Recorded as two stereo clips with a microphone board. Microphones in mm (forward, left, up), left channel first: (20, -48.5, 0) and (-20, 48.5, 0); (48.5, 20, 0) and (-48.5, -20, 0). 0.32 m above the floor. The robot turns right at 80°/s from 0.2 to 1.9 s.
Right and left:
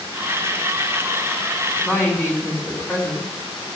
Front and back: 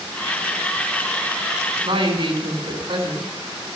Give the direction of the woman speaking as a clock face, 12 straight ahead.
5 o'clock.